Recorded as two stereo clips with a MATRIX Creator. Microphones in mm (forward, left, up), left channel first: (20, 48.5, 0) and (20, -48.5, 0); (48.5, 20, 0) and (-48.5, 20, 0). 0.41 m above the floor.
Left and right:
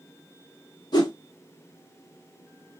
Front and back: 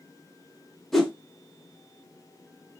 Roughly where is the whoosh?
Left.